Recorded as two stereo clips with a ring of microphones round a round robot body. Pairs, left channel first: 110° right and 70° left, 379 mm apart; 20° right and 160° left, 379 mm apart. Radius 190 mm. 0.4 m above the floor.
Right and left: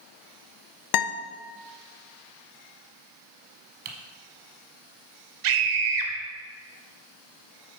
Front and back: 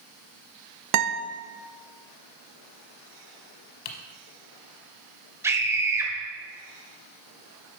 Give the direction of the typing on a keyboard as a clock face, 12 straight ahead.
12 o'clock.